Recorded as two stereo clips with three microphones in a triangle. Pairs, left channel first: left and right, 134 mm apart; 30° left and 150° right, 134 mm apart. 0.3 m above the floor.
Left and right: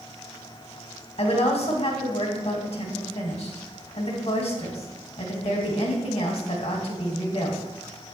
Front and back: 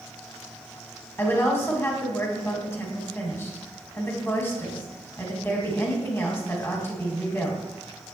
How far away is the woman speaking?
About 1.8 m.